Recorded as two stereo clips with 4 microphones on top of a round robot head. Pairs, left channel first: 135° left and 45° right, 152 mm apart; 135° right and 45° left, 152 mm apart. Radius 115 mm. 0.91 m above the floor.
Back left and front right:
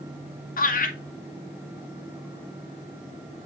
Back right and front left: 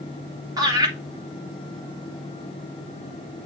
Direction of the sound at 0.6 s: 110° left.